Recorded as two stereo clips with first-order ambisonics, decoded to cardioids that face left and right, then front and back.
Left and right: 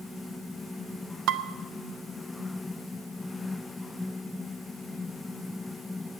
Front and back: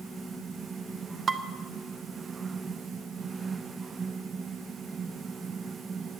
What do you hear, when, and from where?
1.3 s dishes clattering: 115° right, 0.6 m